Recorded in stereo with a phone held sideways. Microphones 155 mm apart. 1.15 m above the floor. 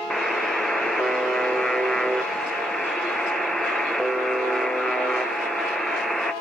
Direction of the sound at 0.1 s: Centre (ahead or behind).